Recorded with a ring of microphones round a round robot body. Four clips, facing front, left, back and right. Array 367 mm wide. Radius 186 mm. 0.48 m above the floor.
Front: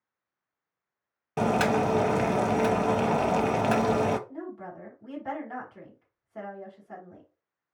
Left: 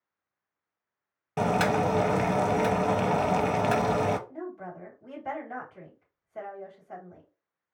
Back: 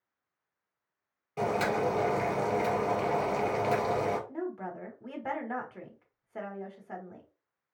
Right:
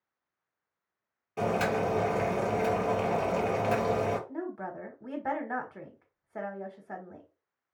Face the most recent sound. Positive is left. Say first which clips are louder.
# right 2 dB, back 2 dB
turn(degrees=-120)